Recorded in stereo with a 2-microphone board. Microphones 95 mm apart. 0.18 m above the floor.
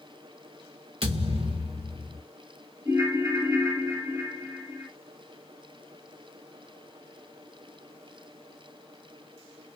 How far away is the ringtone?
About 0.8 m.